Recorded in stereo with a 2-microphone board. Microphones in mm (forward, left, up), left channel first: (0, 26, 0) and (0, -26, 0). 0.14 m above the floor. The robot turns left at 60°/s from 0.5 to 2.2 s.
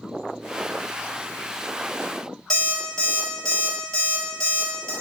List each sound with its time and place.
2.5 s an alarm clock: 15° left (ahead or behind), 1.1 m